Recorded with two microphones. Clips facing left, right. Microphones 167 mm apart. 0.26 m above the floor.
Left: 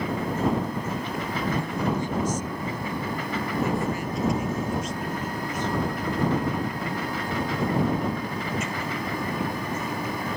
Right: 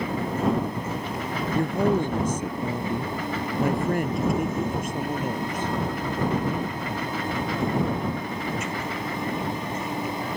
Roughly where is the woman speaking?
Right.